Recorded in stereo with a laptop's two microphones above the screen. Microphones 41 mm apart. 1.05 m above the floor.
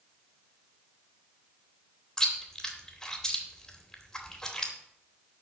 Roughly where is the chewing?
Centre.